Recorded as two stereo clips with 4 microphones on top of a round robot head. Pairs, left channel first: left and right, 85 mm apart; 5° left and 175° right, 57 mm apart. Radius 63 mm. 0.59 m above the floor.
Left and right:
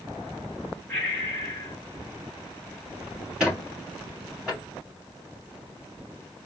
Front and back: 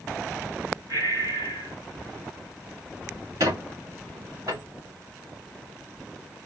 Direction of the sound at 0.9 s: 170° left.